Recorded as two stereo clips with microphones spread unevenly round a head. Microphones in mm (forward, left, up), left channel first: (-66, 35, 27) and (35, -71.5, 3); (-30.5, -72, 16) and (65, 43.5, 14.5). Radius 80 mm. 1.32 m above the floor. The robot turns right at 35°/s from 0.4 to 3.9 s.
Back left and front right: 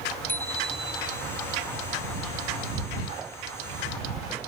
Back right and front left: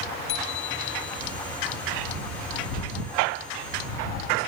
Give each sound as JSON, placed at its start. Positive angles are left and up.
{"t": 0.3, "sound": "a bicycle bell", "azimuth_deg": -150}